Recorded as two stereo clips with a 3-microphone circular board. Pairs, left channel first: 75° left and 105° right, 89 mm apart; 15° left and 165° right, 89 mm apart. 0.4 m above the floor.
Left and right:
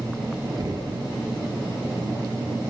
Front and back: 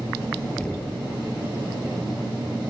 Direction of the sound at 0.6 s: 60° right.